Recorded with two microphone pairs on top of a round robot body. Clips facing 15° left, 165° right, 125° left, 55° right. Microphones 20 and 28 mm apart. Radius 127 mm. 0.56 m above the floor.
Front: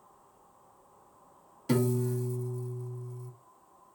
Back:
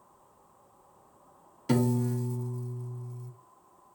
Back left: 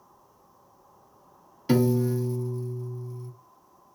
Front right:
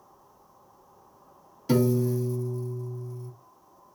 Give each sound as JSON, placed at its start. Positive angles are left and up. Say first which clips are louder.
{"t": 1.7, "sound": "a piano", "louder": "back 1 dB, back left 1 dB", "azimuth_deg": 130, "distance_m": 1.0}